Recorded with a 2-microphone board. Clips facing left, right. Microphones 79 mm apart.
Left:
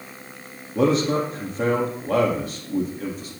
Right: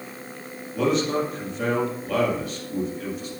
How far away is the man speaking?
About 3.5 m.